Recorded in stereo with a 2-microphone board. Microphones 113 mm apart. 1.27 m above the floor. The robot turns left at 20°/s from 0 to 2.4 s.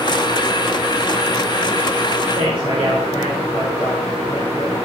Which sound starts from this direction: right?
A man speaking, at 2.4 s.